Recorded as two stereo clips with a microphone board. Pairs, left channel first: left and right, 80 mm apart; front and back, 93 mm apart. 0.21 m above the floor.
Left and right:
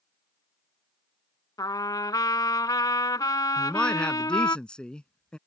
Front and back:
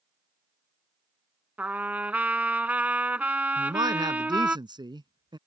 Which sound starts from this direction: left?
A trumpet, at 1.6 s.